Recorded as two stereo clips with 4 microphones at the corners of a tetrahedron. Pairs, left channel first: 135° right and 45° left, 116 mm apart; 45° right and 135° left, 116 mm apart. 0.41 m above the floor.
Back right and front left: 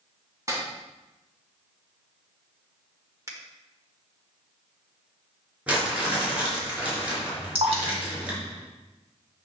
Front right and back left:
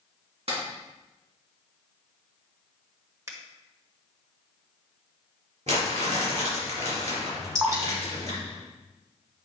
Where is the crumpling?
125° left, 4 m.